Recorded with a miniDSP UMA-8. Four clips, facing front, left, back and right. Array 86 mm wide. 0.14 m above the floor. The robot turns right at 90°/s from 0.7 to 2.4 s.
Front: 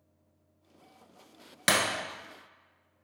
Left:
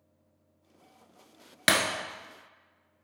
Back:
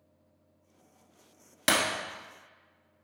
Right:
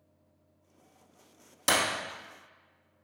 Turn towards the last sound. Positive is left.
turn(degrees=145)